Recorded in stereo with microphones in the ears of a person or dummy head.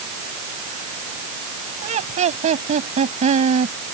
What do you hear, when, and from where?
1.8 s laughter: 40° right (ahead or behind)